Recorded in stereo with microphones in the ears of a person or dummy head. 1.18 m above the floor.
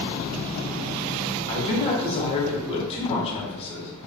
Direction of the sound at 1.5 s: 35° left (ahead or behind).